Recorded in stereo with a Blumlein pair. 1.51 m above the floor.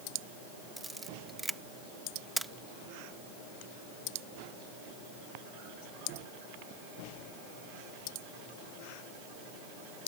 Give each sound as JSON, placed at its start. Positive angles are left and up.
{"t": 0.8, "sound": "a camera shutter", "azimuth_deg": -5}